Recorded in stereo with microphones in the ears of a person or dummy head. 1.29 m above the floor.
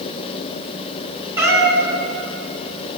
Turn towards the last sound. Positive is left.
turn(degrees=-10)  # may be behind; listen again after turning